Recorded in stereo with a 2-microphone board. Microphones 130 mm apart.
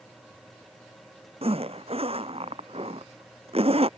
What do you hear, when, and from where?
1.4 s a zipper: 50° right (ahead or behind)